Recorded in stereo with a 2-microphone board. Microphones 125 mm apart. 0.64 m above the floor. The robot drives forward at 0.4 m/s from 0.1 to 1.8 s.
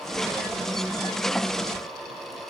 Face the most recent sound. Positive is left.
No sound to turn to.